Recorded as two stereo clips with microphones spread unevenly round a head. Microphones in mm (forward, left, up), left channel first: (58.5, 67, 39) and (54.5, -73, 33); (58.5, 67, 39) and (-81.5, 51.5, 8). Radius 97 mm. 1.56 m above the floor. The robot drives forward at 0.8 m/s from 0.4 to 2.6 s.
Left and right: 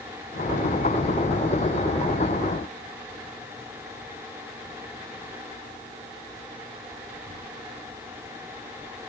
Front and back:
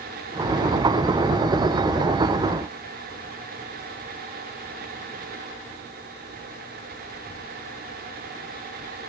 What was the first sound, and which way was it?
Only background noise.